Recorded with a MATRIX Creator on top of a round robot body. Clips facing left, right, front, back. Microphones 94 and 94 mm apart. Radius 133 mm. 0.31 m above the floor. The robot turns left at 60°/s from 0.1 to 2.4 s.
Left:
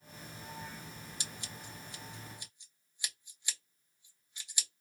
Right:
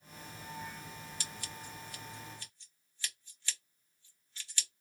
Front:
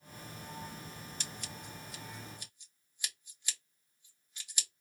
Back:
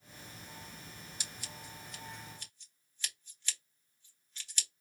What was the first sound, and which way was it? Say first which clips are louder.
Scissors: right 1 dB, front 2 dB; 120° left.